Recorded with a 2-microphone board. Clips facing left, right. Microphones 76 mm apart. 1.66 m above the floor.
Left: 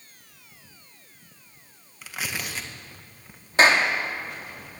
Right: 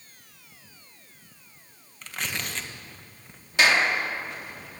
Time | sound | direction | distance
2.0 | tearing paper | 5° left (ahead or behind) | 1.9 m
3.6 | a clap | 40° left (ahead or behind) | 2.5 m